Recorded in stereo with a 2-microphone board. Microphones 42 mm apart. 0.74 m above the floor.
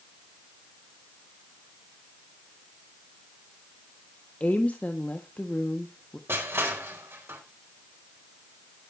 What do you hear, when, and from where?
4.4 s a woman speaking: 35° left (ahead or behind), 1.2 m
6.3 s crushing: 70° right (ahead or behind), 4 m